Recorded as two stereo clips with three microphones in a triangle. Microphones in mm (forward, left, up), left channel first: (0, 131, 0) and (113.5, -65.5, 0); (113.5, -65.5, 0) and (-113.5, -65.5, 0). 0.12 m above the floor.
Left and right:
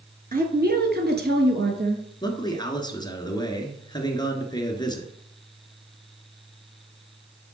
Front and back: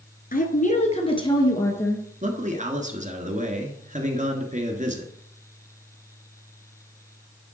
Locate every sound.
0.3 s a woman speaking: 30° right, 1.7 m; by 2.1 s 80° right, 2.0 m
2.2 s a man speaking: 175° left, 1.4 m